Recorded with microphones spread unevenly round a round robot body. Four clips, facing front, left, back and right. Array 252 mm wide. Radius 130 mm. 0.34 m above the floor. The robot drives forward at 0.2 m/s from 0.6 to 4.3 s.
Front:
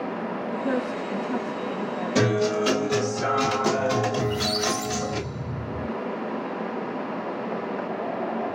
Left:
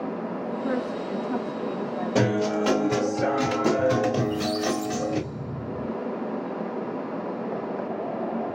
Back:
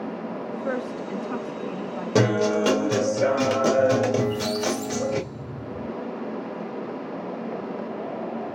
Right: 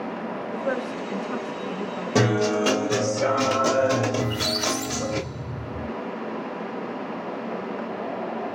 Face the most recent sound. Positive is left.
turn(degrees=-60)